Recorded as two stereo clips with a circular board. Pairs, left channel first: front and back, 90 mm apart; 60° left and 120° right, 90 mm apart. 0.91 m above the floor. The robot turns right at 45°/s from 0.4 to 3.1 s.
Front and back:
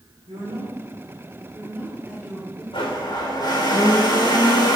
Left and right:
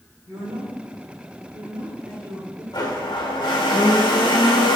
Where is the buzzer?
I don't hear a buzzer.